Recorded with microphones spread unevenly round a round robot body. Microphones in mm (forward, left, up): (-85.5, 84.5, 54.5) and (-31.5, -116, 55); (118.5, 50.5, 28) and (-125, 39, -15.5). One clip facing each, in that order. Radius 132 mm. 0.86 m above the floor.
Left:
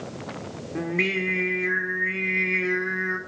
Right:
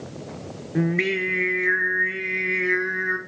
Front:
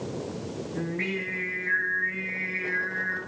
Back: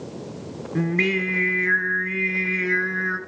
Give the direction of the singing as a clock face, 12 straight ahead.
5 o'clock.